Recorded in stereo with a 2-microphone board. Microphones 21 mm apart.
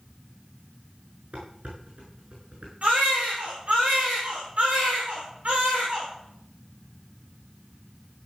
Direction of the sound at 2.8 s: 85° right.